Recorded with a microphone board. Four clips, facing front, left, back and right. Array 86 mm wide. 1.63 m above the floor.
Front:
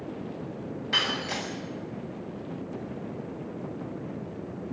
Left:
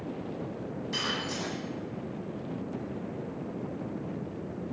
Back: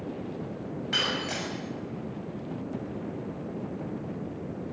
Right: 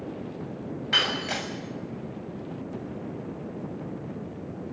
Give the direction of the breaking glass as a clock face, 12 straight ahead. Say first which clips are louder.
Right 6 dB, front 1 dB; 3 o'clock.